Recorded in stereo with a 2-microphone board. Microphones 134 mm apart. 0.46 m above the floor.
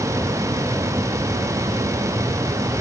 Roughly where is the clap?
I don't hear a clap.